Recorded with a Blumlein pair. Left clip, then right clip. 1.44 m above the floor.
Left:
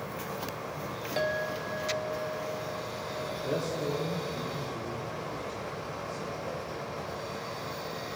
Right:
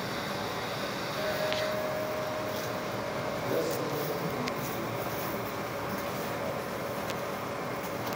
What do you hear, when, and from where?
0.0 s a fan: 20° right, 1.5 m
1.2 s a clink: 45° left, 3.5 m
3.3 s a man speaking: straight ahead, 4 m